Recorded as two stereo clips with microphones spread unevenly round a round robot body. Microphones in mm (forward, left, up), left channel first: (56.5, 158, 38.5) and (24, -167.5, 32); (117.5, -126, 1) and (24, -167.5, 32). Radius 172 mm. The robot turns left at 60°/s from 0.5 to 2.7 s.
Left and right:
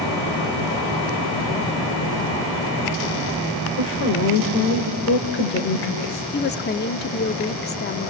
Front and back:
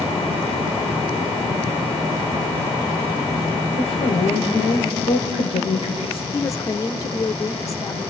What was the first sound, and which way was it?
A woman speaking, 35° left.